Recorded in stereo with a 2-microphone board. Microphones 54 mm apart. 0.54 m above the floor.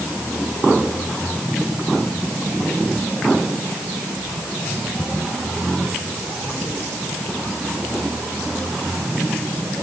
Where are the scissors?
No scissors in this recording.